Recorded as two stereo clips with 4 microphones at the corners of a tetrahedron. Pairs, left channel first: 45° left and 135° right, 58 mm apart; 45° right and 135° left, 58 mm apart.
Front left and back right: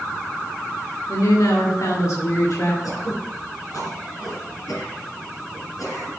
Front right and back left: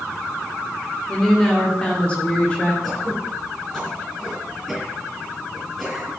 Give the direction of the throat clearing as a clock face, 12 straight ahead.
11 o'clock.